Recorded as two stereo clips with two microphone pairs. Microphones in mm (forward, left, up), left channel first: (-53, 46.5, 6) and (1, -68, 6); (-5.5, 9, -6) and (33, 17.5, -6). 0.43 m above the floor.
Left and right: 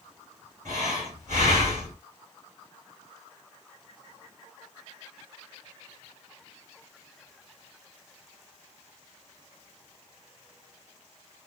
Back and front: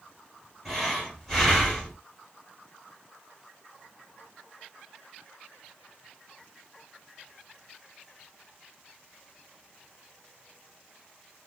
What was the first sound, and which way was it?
Breathing, 80° right.